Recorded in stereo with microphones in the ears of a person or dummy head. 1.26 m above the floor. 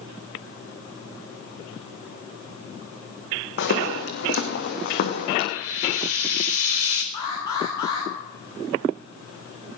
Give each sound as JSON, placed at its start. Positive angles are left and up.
{"t": 3.6, "sound": "footsteps", "side_deg": 65, "distance_m": 3.5}
{"t": 5.5, "sound": "frying", "side_deg": 80, "distance_m": 4.0}
{"t": 7.1, "sound": "an alarm", "side_deg": 20, "distance_m": 7.0}